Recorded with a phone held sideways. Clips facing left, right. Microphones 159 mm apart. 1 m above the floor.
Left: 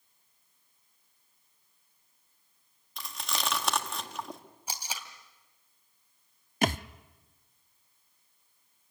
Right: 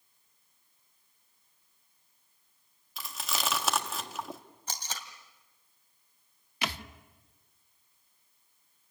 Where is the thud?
45° left (ahead or behind), 0.6 m.